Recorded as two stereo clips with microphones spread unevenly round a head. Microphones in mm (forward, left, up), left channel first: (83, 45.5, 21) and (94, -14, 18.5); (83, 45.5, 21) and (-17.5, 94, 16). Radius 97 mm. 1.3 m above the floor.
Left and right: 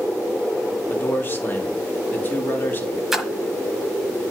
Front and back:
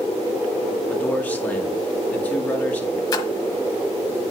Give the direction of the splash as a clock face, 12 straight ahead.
12 o'clock.